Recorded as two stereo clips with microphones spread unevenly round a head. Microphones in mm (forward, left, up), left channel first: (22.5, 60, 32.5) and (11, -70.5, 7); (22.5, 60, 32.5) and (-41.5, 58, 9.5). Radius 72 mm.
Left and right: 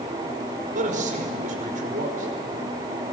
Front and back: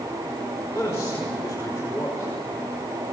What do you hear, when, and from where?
0.8 s a man speaking: 65° right, 5.5 m